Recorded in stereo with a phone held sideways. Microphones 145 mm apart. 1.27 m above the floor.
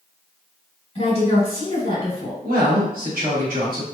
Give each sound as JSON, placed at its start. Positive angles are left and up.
{"t": 0.9, "sound": "a woman speaking", "side_deg": 40, "distance_m": 1.7}
{"t": 2.4, "sound": "a woman speaking", "side_deg": -85, "distance_m": 1.4}